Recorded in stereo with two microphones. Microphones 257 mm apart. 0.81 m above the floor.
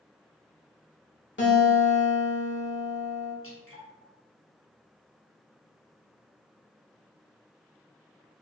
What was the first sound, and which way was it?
A guitar, 45° left (ahead or behind).